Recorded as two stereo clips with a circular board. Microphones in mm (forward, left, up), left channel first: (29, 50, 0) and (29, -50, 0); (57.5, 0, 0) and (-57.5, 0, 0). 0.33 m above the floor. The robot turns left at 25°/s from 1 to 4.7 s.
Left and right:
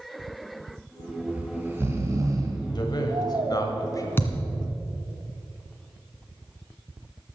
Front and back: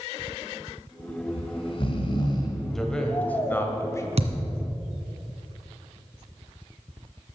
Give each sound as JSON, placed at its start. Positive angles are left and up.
{"t": 1.3, "sound": "snoring", "azimuth_deg": -15, "distance_m": 1.6}
{"t": 2.8, "sound": "a man speaking", "azimuth_deg": 85, "distance_m": 1.6}
{"t": 4.2, "sound": "a thud", "azimuth_deg": 155, "distance_m": 1.7}